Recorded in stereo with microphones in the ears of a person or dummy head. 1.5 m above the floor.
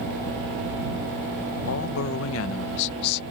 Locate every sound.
1.7 s a man speaking: 80° left; by 3.2 s 55° left (ahead or behind)